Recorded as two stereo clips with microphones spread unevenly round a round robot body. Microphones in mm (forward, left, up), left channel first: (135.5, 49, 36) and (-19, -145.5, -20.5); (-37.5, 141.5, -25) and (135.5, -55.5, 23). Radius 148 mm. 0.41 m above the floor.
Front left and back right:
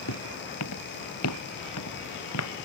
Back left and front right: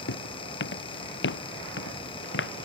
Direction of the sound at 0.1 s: 90° left.